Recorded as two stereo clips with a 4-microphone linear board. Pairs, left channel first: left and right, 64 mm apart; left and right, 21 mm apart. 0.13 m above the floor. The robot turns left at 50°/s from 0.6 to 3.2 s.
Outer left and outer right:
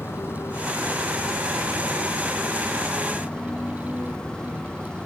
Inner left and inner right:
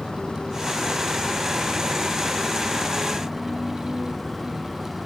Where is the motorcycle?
140° left; by 5.1 s 10° left.